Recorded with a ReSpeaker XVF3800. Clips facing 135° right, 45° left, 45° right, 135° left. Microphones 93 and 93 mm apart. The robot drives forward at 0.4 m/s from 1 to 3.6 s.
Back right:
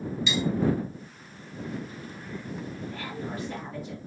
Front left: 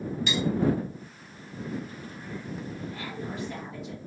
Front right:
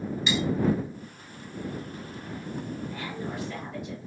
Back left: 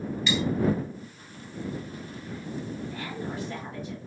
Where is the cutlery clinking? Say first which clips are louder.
Back right 1 dB, even; 20° left, 1.3 m.